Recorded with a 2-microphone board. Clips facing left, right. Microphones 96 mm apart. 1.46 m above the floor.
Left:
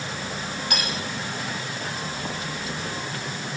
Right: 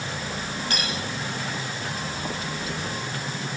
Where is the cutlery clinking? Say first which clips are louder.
Left 1 dB; 15° left (ahead or behind), 6.5 m.